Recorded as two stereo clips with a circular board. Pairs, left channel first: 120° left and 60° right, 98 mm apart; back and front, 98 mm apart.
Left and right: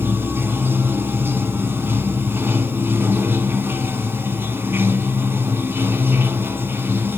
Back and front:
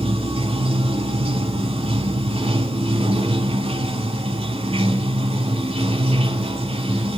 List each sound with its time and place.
0.0 s running water: 5° left, 1.0 m